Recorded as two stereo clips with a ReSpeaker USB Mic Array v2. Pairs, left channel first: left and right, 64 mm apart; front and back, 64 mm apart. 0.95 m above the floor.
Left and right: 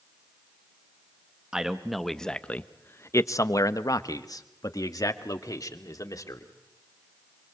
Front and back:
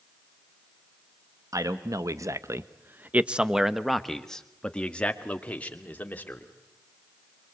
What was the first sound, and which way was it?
A man speaking, 170° right.